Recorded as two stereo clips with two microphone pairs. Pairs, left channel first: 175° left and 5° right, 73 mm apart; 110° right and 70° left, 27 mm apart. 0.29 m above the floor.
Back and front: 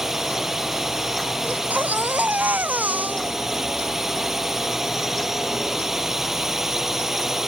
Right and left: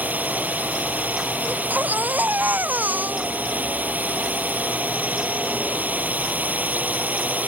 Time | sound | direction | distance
0.0 | a drone | 80° left | ?
1.4 | a baby crying | 65° left | ?